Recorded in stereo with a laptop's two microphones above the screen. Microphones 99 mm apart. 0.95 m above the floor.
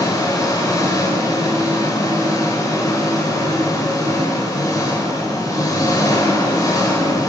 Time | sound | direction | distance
0.0 | an engine running | 35° left (ahead or behind) | 2.5 m